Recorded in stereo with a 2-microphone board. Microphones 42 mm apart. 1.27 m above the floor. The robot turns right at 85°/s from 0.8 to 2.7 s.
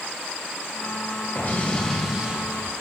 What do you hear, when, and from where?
1.4 s an explosion: 125° left, 4 m; by 2.7 s 120° right, 4 m